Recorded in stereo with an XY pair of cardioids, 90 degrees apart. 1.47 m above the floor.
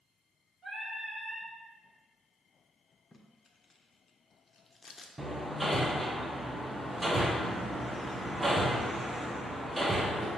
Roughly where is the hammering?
Ahead.